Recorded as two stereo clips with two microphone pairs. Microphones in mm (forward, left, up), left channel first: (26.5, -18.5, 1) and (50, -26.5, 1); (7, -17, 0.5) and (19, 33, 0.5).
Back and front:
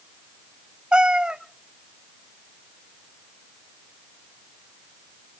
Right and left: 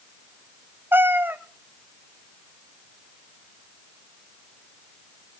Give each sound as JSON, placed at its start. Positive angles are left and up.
{"t": 0.9, "sound": "a cat meowing", "azimuth_deg": 30, "distance_m": 1.0}